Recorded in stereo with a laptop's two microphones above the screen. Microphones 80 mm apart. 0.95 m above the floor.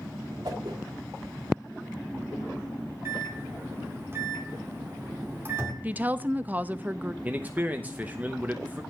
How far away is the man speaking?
About 0.8 m.